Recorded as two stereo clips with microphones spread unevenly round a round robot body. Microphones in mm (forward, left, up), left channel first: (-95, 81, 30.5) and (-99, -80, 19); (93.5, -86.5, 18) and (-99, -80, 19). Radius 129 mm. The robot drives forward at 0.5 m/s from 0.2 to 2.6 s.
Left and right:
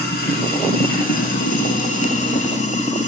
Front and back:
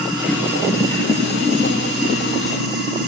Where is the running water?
95° left, 1.8 m; by 3.1 s 130° left, 2 m.